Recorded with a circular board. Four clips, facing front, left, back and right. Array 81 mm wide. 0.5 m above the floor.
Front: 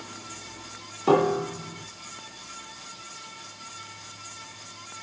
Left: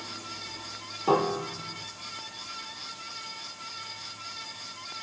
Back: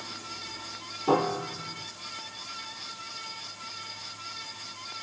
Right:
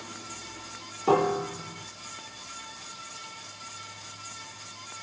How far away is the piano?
About 1.2 m.